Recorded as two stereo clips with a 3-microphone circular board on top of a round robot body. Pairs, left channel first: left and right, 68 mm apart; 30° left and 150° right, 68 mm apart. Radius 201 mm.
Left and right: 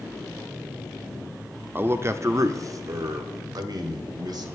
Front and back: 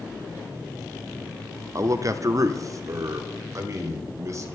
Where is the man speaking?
140° right, 1.1 m; by 4.5 s 105° right, 2.5 m.